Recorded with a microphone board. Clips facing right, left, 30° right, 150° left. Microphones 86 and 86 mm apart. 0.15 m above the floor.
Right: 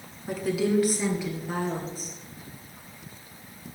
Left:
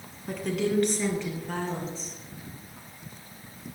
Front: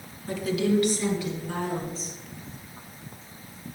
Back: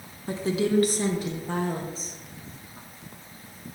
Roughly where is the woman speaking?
Behind.